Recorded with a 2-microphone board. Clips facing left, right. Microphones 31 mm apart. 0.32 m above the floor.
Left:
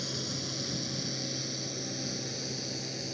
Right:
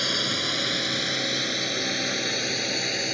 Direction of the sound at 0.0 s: 65° right (ahead or behind).